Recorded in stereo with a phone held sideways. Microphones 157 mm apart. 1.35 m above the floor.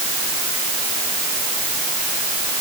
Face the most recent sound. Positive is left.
No sound to turn to.